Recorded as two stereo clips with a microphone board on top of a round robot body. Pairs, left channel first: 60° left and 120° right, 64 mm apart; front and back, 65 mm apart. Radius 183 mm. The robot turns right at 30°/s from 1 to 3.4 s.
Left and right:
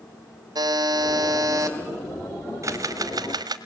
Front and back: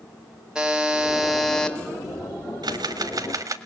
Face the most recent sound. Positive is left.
turn(degrees=-140)